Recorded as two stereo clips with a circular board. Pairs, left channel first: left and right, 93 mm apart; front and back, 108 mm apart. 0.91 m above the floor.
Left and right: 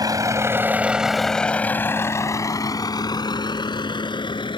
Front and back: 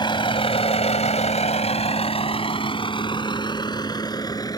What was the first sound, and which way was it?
A vehicle, 45° right.